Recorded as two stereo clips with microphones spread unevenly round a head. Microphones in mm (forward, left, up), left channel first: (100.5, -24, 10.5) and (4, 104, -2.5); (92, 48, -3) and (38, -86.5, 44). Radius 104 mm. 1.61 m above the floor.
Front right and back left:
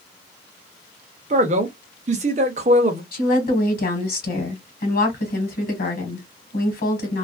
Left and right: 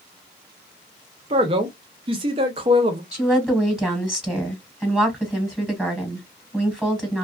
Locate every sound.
1.3 s a man speaking: straight behind, 0.5 m
3.1 s a woman speaking: 30° right, 1.4 m